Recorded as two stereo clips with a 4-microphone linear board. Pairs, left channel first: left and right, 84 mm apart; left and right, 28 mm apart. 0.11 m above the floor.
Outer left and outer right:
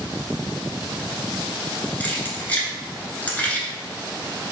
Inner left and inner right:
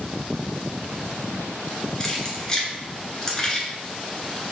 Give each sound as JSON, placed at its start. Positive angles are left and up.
{"t": 2.0, "sound": "keys jangling", "side_deg": 20, "distance_m": 0.7}